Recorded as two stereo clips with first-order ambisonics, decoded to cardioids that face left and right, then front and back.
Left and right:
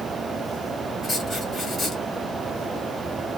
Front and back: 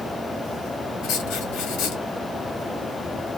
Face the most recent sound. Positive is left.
turn(degrees=15)